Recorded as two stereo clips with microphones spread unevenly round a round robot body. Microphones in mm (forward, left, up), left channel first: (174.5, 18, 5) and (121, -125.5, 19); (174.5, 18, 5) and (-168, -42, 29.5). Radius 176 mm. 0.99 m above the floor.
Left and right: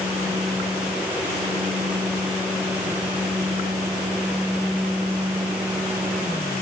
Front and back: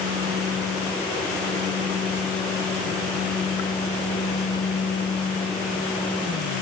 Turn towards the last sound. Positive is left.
No sound to turn to.